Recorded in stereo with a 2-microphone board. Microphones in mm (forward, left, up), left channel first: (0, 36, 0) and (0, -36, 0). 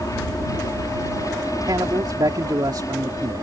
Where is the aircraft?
55° left (ahead or behind); by 3.4 s 50° left (ahead or behind).